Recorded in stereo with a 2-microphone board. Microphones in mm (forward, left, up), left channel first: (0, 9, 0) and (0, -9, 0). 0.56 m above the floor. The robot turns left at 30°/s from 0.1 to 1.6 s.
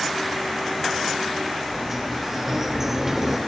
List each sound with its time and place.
1.7 s a sliding door: 15° right (ahead or behind), 0.6 m